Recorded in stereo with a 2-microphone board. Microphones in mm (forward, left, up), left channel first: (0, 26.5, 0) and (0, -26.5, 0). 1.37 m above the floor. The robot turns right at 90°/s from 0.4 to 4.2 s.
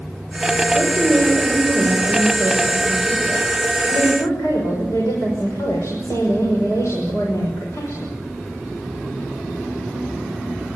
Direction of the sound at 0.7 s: 150° left.